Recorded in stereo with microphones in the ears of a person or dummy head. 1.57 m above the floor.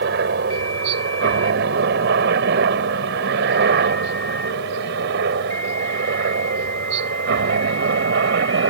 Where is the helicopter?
65° right (ahead or behind).